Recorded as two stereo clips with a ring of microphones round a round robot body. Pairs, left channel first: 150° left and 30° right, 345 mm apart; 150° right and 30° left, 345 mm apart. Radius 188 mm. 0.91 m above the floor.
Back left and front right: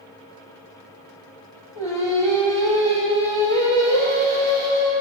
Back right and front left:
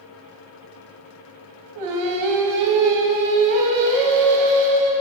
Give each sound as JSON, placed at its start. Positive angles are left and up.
{"t": 1.8, "sound": "singing", "azimuth_deg": 70, "distance_m": 0.7}